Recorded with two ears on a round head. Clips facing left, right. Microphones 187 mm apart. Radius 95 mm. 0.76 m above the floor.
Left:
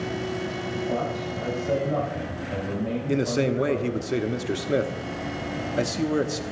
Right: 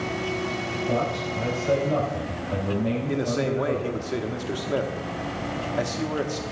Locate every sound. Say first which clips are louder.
0.9 s a man speaking: right 4 dB; 40° right (ahead or behind), 4.5 m
3.1 s a man speaking: left 1 dB; 25° left (ahead or behind), 1.1 m